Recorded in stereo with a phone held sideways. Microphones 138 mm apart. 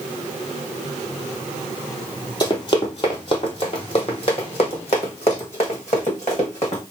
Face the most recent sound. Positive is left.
turn(degrees=50)  # may be behind; listen again after turning